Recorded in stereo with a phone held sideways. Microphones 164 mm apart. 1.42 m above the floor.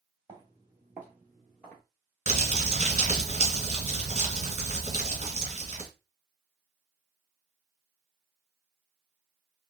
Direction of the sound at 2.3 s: 45° right (ahead or behind).